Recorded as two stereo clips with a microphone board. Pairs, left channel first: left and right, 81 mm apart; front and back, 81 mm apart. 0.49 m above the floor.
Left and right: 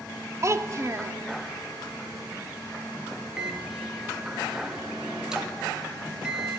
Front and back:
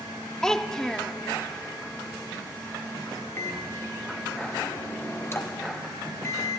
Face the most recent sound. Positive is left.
turn(degrees=-20)